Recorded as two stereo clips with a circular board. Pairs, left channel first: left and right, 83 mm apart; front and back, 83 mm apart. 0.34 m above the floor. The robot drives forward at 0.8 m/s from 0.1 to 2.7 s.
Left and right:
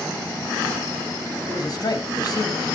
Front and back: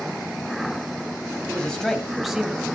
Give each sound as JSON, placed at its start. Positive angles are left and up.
{"t": 1.5, "sound": "a man speaking", "azimuth_deg": 75, "distance_m": 2.5}